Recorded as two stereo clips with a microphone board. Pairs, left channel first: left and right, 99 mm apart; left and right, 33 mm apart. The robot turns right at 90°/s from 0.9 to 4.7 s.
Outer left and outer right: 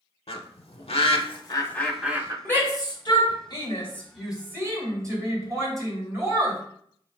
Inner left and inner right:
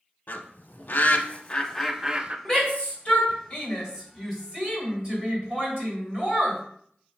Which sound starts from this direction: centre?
A shout, at 2.5 s.